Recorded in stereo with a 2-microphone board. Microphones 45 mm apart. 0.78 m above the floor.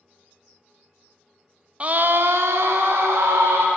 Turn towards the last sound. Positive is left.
turn(degrees=-80)